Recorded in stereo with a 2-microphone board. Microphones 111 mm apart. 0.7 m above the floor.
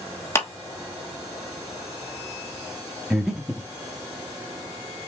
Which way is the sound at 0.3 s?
20° left (ahead or behind).